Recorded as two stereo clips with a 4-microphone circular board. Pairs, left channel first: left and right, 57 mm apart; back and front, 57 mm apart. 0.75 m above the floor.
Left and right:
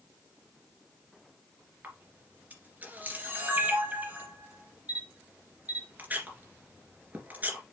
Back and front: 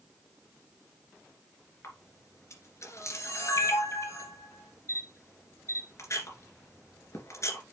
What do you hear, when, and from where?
1.8 s a camera shutter: 150° right, 2.5 m